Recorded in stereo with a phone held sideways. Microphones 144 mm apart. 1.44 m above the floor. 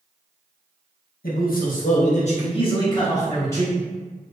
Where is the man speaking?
90° left, 0.9 m; by 3.7 s 15° left (ahead or behind), 1.4 m.